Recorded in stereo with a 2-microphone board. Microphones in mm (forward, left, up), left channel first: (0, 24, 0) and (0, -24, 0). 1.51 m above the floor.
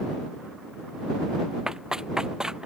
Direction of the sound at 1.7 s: 15° right (ahead or behind).